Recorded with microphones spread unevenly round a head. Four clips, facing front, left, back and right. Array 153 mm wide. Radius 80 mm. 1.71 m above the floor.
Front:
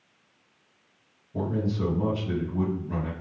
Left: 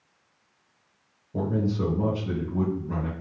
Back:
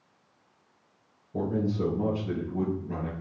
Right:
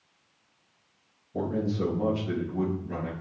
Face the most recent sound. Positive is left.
turn(degrees=120)